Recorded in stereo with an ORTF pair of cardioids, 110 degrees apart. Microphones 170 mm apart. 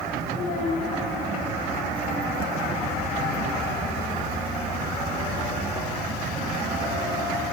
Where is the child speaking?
55° left, 0.7 m.